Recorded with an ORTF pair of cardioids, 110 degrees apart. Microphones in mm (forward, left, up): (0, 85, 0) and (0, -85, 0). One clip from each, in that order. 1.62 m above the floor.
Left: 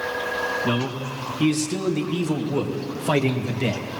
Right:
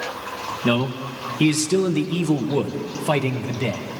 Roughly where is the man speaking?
Ahead right.